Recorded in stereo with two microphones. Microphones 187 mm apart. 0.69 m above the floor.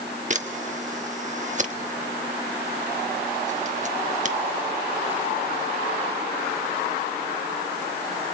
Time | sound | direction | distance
0.3 | a camera shutter | 40° right (ahead or behind) | 1.0 m